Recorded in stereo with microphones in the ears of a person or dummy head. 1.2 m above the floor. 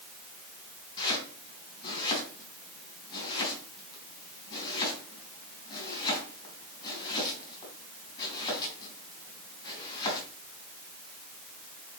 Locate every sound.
1.0 s chopping: 25° left (ahead or behind), 4 m